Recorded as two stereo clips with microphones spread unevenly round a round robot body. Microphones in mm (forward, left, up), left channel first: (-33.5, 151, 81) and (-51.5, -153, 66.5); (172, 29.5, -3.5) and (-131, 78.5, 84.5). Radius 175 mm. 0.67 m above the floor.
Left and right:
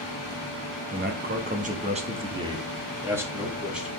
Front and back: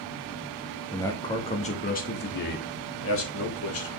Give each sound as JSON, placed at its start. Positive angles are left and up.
{"t": 0.9, "sound": "a man speaking", "azimuth_deg": -70, "distance_m": 1.3}